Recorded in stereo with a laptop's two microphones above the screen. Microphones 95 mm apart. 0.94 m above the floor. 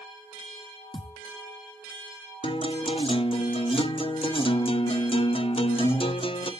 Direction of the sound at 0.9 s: 55° left (ahead or behind).